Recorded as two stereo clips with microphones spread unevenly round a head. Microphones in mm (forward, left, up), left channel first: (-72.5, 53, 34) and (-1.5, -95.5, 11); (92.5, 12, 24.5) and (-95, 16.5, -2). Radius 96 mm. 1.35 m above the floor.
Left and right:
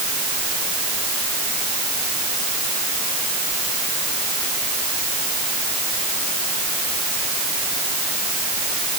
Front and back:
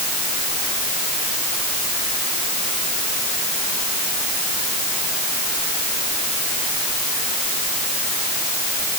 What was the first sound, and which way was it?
Only background noise.